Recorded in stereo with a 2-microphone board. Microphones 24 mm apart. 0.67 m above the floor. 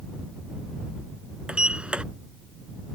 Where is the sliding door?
55° right (ahead or behind).